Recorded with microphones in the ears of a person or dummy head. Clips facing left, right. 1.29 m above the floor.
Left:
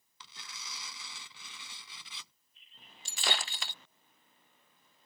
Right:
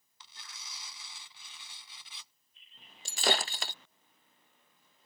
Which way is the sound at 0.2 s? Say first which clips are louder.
Left 3 dB; 65° left (ahead or behind).